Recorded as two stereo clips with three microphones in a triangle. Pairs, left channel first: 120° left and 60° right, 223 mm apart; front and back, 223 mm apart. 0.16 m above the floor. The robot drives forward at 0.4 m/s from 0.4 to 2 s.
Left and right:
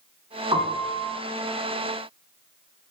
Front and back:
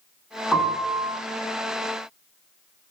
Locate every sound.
0.5 s a piano: 85° right, 0.7 m; by 1.1 s 125° right, 0.7 m